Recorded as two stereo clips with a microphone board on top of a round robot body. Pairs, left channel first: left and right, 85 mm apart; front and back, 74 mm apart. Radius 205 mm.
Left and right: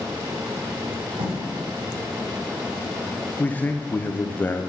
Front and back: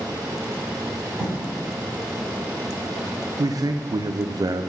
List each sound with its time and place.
1.2 s writing: 100° right, 4.5 m
3.4 s a man speaking: 160° left, 1.1 m